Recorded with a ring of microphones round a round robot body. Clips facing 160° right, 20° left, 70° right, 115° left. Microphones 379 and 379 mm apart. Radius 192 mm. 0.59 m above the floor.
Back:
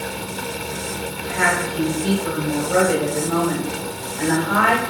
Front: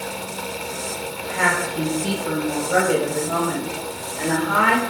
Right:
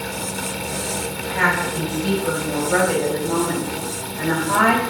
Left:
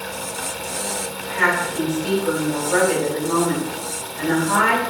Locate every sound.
1.2 s a woman speaking: 100° right, 3.5 m; by 4.8 s 50° right, 4 m